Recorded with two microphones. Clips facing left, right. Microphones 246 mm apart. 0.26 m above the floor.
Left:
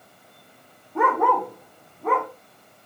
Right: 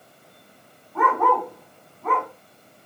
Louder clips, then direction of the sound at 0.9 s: Left 1 dB; 25° left (ahead or behind).